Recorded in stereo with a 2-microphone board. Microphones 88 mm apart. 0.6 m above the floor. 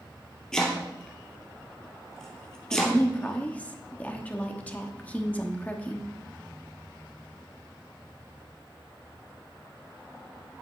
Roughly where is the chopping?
Centre.